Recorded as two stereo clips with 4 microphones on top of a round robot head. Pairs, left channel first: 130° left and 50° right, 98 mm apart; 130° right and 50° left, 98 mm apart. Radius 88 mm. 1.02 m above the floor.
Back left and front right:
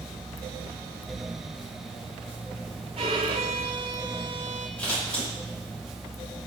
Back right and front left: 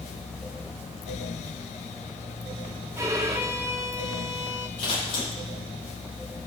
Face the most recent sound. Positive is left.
turn(degrees=-150)